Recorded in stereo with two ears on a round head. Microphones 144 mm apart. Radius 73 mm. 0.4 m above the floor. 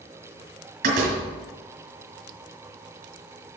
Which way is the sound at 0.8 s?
60° right (ahead or behind).